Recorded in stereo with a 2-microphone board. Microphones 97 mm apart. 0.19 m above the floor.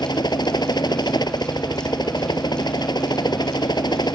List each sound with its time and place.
0.0 s a helicopter: 45° left (ahead or behind)